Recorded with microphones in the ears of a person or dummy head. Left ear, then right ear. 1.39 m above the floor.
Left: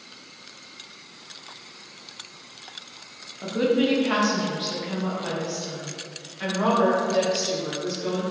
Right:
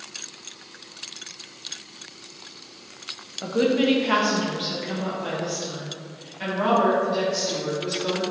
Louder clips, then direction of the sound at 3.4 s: Right 1 dB; 15° right (ahead or behind).